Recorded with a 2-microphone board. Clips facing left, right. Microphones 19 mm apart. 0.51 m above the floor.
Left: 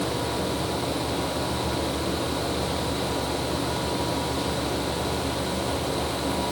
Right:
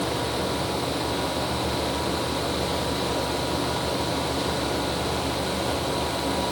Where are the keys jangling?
I don't hear keys jangling.